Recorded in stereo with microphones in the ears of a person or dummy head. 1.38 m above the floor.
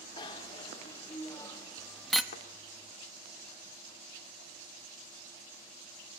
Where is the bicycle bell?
25° left (ahead or behind), 2.5 m; by 2.2 s centre (ahead or behind), 1.3 m.